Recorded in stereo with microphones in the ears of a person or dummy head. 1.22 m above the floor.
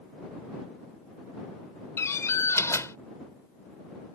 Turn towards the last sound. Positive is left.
turn(degrees=20)  # may be behind; listen again after turning